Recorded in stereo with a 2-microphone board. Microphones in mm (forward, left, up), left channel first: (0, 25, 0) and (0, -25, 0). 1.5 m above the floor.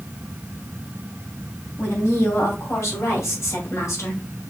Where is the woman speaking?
75° left (ahead or behind), 3 m; by 4.2 s 80° left, 1.8 m.